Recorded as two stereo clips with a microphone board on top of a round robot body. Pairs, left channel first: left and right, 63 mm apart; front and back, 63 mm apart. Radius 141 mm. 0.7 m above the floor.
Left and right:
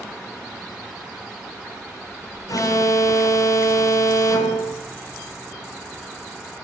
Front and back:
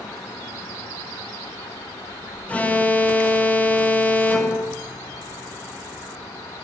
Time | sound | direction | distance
2.5 | an alarm | 65° left | 5 m